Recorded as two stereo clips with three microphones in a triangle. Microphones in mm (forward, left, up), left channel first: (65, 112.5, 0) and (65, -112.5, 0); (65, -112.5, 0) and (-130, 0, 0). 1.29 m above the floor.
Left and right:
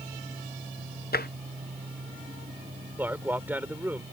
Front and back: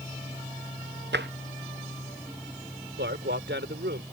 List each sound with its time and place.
1.1 s tapping: 125° left
3.0 s a man speaking: 170° right